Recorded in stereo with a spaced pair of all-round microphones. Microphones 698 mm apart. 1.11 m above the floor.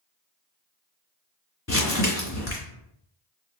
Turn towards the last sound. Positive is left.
turn(degrees=20)  # may be behind; listen again after turning